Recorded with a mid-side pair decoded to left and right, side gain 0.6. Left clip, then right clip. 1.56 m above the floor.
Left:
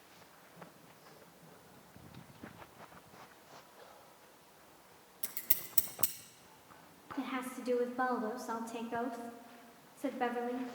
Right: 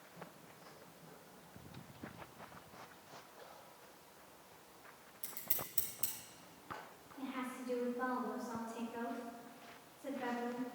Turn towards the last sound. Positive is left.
turn(degrees=65)